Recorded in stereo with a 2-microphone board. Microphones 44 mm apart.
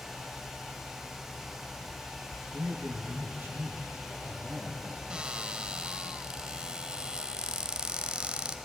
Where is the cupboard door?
20° right (ahead or behind), 1.0 m.